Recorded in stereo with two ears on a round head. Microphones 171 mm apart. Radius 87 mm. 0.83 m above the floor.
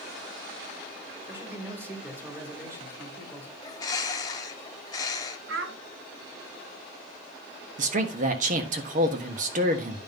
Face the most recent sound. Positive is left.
turn(degrees=-45)  # may be behind; listen again after turning